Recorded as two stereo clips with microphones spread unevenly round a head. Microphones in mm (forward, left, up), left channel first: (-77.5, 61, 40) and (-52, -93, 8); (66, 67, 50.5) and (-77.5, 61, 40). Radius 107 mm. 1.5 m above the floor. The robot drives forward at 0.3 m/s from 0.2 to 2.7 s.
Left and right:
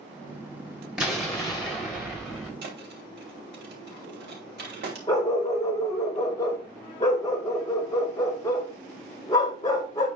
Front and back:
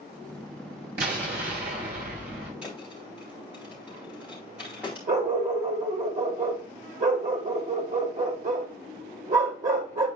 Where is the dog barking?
160° left, 2 m.